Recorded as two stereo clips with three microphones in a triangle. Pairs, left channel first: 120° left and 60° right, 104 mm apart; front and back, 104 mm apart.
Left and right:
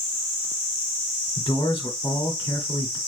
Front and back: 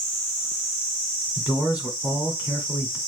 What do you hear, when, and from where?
1.4 s a man speaking: 105° left, 1.9 m